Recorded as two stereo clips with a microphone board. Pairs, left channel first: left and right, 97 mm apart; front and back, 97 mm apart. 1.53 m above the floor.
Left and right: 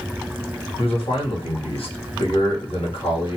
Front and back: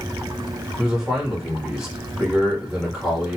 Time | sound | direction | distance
0.8 | a man speaking | 95° left | 1.1 m